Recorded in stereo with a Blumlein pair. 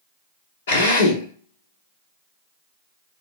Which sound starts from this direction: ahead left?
A drill, at 0.7 s.